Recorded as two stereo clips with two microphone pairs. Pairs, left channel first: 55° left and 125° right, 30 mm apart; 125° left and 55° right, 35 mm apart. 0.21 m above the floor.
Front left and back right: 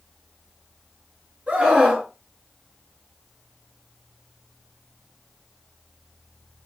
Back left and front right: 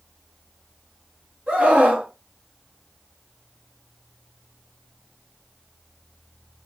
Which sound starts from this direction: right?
A scream, at 1.5 s.